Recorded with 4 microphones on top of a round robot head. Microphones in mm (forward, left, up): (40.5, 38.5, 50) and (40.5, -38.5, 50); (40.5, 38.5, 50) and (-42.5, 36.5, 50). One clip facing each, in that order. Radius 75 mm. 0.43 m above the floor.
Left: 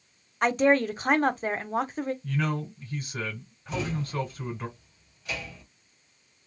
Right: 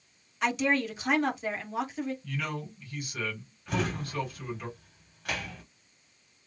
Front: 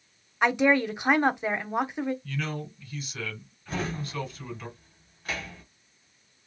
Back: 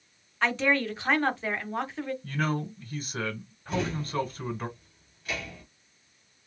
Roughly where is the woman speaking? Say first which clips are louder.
Left 6 dB, front 4 dB; left.